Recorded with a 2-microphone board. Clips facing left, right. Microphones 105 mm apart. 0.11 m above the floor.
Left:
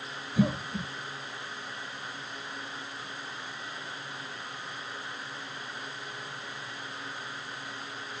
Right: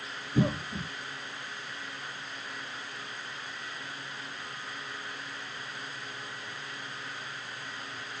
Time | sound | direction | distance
0.3 | a cough | 60° right (ahead or behind) | 5.5 m